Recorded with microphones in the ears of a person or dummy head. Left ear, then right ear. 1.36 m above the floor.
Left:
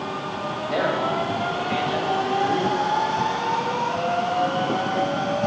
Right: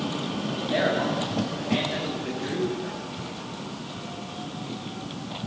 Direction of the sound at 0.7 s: 40° left (ahead or behind).